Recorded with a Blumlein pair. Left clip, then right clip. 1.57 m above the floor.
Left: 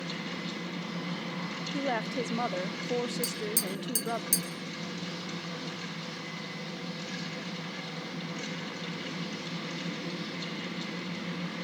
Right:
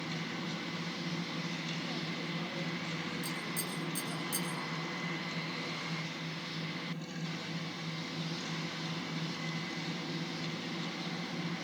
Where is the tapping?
35° left, 3 m.